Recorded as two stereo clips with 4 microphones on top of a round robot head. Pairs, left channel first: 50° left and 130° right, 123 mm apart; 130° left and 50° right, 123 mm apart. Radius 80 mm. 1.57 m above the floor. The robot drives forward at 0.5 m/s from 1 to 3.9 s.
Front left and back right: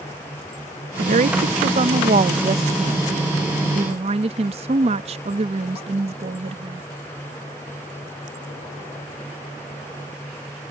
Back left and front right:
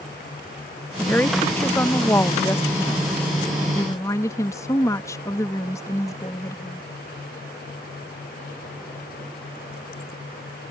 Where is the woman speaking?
155° right; by 6.8 s 165° right.